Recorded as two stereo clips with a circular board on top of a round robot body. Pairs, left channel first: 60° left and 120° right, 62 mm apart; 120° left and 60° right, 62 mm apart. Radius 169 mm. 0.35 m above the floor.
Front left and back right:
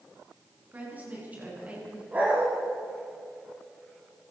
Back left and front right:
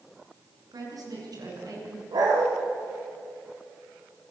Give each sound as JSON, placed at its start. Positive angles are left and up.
{"t": 0.7, "sound": "a woman speaking", "azimuth_deg": -55, "distance_m": 6.5}
{"t": 2.1, "sound": "a dog barking", "azimuth_deg": -50, "distance_m": 6.5}